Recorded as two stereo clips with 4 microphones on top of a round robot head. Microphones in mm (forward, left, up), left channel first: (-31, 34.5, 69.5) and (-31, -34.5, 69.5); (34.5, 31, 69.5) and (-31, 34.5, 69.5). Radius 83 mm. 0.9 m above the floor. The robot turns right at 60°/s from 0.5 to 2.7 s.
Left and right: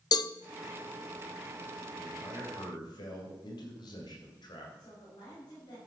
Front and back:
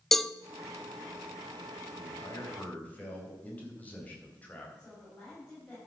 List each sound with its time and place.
0.1 s a cowbell: 85° left, 0.6 m
2.0 s a man speaking: 20° left, 4.5 m; by 4.7 s 65° left, 4.5 m
4.8 s a woman speaking: 65° left, 6 m